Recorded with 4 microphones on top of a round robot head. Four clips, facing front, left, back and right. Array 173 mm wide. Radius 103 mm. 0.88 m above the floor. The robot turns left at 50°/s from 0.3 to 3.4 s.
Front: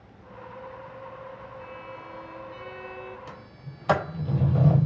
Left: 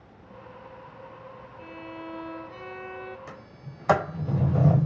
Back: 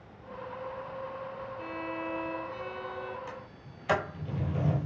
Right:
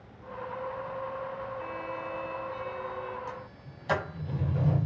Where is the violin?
175° left, 1.3 m; by 3.2 s 95° left, 1.3 m.